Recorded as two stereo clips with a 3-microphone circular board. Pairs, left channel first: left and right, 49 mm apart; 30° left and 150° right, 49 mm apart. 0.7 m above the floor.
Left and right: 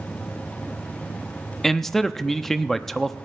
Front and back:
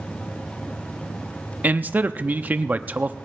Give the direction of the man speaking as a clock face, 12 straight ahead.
6 o'clock.